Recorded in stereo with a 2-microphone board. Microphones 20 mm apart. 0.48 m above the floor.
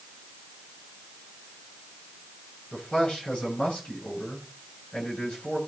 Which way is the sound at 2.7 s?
70° left (ahead or behind).